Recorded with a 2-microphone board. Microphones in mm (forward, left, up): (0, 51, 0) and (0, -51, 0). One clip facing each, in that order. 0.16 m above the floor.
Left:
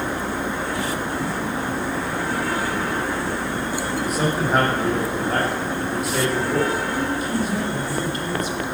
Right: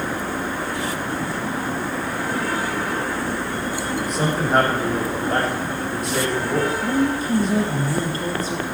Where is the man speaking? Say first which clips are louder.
Even; 5° left (ahead or behind), 7.5 m.